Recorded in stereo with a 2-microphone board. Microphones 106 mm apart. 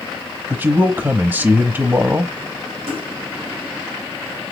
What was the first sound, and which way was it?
A man speaking, 25° right (ahead or behind).